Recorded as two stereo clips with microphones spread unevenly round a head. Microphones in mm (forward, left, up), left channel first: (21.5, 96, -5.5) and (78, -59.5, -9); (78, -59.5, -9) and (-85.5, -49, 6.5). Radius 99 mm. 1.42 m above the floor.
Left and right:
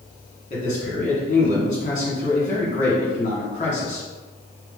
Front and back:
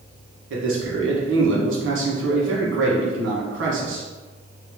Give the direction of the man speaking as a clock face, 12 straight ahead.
6 o'clock.